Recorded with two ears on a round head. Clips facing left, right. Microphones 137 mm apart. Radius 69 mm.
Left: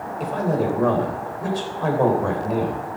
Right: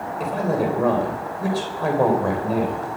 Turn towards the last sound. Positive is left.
turn(degrees=-5)  # may be behind; listen again after turning